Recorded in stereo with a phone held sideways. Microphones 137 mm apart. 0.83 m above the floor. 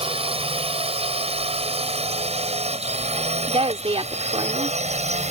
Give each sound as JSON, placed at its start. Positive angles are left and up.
{"t": 0.0, "sound": "a drone", "side_deg": -45}
{"t": 3.5, "sound": "a woman speaking", "side_deg": -50}